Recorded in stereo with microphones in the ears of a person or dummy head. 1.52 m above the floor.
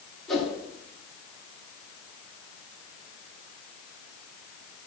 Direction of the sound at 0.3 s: Centre (ahead or behind).